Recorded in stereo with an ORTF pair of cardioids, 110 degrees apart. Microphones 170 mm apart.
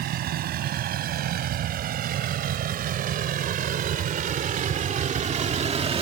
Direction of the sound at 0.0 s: 65° right.